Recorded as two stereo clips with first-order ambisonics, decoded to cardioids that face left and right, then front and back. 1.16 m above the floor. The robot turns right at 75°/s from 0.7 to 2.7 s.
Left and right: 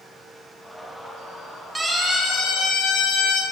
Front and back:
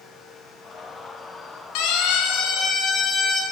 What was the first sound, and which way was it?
A siren, 10° right.